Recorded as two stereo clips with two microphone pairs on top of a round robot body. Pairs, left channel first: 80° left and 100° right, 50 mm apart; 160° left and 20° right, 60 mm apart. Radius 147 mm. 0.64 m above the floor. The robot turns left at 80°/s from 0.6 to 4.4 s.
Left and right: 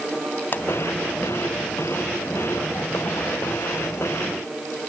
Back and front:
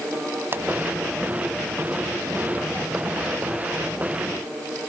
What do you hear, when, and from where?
0.5 s a pop: 30° left; by 0.7 s 25° left